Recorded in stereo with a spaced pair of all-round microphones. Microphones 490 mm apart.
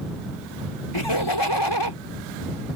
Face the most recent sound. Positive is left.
turn(degrees=55)  # may be behind; listen again after turning